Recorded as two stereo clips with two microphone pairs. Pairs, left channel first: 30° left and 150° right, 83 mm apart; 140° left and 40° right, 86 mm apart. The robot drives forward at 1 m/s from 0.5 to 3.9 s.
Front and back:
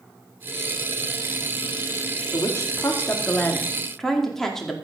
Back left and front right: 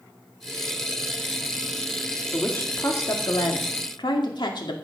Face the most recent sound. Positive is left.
turn(degrees=110)